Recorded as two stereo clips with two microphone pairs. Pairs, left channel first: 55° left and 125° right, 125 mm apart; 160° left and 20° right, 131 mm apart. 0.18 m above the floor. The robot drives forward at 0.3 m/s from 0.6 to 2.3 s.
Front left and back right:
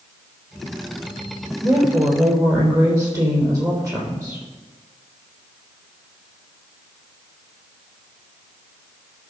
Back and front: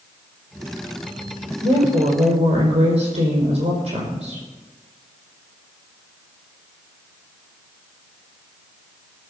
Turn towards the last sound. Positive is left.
turn(degrees=-65)